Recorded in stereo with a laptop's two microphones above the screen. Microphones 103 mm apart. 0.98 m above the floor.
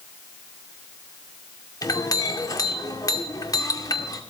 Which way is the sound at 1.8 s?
35° left (ahead or behind).